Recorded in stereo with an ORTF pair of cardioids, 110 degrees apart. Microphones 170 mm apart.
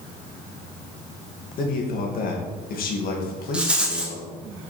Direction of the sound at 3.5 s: 5° right.